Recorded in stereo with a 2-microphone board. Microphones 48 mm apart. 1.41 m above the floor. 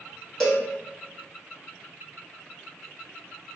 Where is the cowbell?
10° left (ahead or behind), 0.8 m.